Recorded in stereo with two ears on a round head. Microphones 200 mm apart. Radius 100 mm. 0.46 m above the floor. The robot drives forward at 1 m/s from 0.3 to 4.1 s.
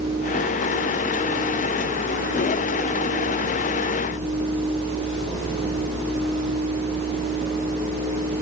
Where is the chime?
No chime in this recording.